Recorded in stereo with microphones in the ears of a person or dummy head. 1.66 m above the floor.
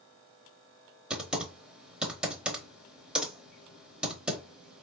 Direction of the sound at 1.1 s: 5° right (ahead or behind).